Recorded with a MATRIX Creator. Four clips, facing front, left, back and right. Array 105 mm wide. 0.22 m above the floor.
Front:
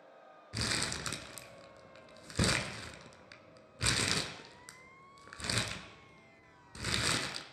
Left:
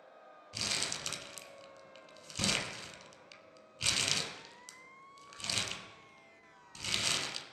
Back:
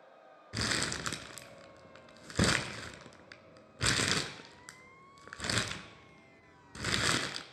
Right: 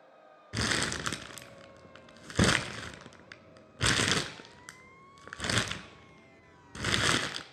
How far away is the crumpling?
About 0.6 m.